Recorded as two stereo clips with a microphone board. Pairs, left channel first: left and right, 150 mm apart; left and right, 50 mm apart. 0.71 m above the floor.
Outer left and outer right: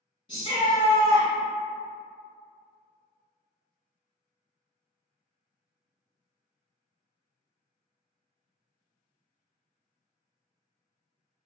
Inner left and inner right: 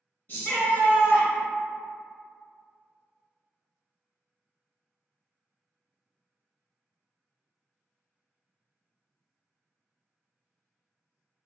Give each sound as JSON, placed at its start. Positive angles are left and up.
{"t": 0.3, "sound": "a shout", "side_deg": 30, "distance_m": 1.2}